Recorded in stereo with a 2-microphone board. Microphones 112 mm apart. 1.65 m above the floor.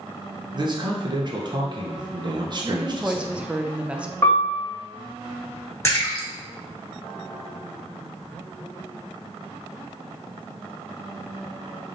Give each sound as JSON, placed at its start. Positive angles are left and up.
{"t": 0.5, "sound": "a man speaking", "side_deg": -40, "distance_m": 0.9}
{"t": 2.6, "sound": "a woman speaking", "side_deg": -10, "distance_m": 0.6}
{"t": 4.2, "sound": "a piano", "side_deg": 25, "distance_m": 1.1}
{"t": 5.8, "sound": "a splash", "side_deg": 25, "distance_m": 1.7}